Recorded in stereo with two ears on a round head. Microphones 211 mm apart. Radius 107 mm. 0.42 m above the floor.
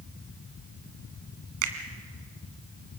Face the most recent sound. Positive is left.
turn(degrees=-65)  # may be behind; listen again after turning